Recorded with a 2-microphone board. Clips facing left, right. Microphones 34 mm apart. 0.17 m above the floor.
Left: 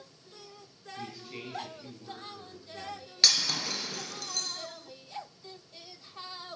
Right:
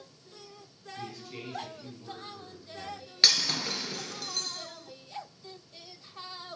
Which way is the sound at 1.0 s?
15° left (ahead or behind).